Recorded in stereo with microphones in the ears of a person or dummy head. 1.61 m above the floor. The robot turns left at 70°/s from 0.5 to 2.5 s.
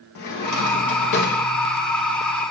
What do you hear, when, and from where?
0.1 s a drawer: 115° left, 1.2 m; by 1.4 s 50° left, 1.2 m